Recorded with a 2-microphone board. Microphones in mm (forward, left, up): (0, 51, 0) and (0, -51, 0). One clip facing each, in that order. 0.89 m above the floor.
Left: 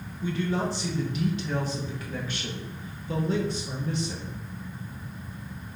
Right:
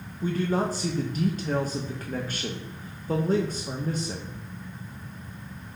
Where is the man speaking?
40° right (ahead or behind), 0.6 m.